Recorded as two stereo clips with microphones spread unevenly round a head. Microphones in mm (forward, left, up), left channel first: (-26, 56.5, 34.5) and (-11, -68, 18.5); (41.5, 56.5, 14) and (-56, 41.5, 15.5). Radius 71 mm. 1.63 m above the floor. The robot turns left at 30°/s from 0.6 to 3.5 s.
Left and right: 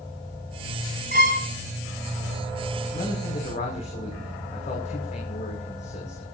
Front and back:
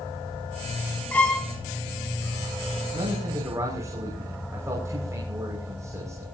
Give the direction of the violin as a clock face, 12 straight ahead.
2 o'clock.